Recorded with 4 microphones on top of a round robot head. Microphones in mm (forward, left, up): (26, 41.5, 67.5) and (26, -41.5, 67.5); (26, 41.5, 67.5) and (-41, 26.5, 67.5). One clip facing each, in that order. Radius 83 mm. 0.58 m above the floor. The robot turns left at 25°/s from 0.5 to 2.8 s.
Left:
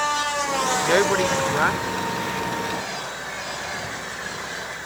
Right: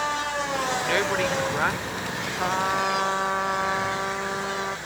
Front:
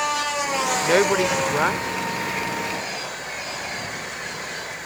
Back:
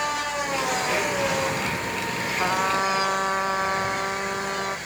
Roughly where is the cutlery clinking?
I don't hear cutlery clinking.